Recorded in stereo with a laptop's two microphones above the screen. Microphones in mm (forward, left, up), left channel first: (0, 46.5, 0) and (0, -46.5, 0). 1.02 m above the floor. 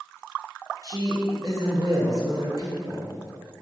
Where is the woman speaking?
40° right (ahead or behind), 0.5 m.